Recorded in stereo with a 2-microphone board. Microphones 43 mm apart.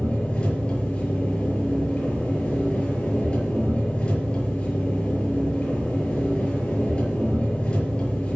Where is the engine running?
25° left (ahead or behind), 7 m.